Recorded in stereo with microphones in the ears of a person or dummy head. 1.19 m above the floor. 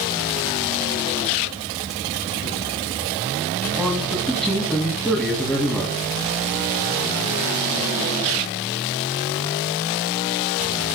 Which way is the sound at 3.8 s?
5° left (ahead or behind).